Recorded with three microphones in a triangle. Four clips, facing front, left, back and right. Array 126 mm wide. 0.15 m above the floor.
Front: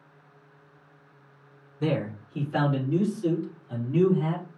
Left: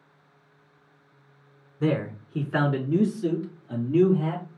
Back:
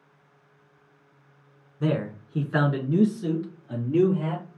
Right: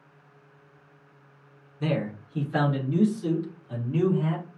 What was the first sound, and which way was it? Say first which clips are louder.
A man speaking: left 3 dB, back 1 dB; 115° left.